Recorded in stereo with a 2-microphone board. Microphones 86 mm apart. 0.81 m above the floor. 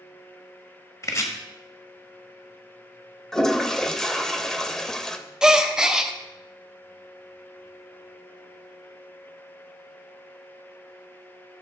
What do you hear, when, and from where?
1.0 s chopping: 35° left (ahead or behind), 1.2 m
3.3 s a toilet flushing: 5° left (ahead or behind), 0.6 m
5.4 s a gasp: 5° right (ahead or behind), 0.6 m